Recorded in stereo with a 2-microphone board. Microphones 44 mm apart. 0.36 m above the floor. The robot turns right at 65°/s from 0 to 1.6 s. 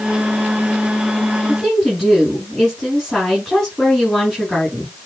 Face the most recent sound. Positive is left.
turn(degrees=5)  # may be behind; listen again after turning